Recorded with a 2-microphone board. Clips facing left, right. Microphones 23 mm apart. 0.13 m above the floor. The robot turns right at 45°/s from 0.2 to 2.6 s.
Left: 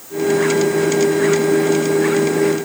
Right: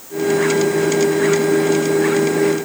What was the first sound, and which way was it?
Only background noise.